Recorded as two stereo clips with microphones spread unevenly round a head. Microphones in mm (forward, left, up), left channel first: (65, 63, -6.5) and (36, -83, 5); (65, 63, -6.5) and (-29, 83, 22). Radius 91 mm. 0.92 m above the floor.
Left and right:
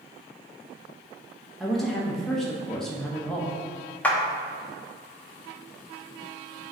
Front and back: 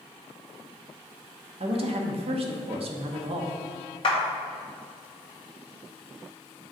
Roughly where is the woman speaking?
Behind.